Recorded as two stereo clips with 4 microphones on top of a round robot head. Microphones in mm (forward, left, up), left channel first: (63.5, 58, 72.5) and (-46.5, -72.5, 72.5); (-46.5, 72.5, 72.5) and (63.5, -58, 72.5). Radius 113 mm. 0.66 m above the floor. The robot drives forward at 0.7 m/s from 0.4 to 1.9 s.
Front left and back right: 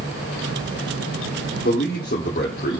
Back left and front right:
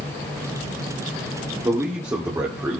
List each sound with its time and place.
1.6 s a man speaking: 20° left, 2 m; by 2.8 s 25° left, 2 m